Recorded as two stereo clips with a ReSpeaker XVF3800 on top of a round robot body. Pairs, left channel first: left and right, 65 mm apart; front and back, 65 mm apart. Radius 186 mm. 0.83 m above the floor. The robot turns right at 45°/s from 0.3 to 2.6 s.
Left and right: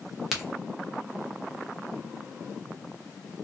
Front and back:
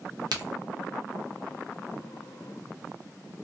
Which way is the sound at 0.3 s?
175° right.